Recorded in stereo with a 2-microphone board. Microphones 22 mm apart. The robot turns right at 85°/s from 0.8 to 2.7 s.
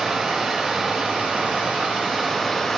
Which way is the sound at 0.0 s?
140° right.